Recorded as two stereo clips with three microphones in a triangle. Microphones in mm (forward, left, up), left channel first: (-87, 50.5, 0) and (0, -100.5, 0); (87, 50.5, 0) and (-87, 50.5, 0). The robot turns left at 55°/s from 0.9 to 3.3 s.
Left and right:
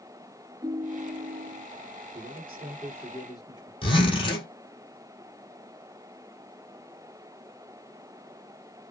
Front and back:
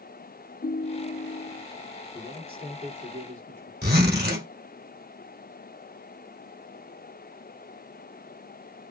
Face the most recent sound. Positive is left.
turn(degrees=180)